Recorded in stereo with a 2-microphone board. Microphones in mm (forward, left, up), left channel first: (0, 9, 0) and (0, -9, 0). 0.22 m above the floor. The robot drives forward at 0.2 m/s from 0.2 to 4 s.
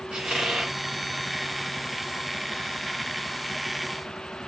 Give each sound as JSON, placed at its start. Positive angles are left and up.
{"t": 0.1, "sound": "a squeak", "side_deg": -60, "distance_m": 1.2}